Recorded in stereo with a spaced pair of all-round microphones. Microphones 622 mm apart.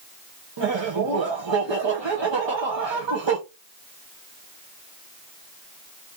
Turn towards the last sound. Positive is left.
turn(degrees=-45)  # may be behind; listen again after turning